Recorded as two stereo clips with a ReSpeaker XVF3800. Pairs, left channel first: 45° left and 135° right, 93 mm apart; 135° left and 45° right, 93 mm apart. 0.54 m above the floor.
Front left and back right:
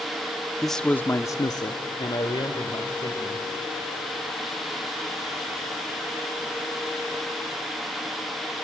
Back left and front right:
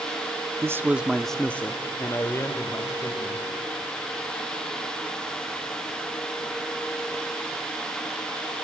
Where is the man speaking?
45° right, 0.6 m; by 3.4 s 80° left, 2 m.